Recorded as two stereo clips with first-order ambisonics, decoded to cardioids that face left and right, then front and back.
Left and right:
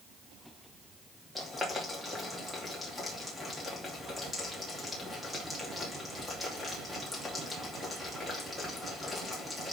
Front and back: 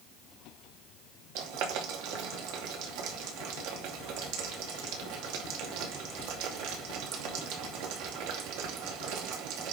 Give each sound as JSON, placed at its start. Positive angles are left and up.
{"t": 1.4, "sound": "boiling", "azimuth_deg": 175, "distance_m": 2.5}